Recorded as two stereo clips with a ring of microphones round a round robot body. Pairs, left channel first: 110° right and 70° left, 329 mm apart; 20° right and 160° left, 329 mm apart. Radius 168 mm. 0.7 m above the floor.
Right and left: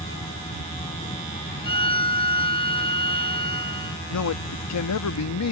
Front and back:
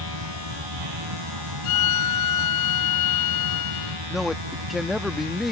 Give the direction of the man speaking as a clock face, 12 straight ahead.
4 o'clock.